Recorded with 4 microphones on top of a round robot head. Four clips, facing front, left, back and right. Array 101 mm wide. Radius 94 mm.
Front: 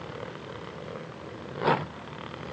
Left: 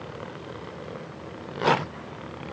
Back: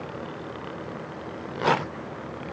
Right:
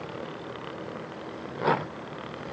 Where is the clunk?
I don't hear a clunk.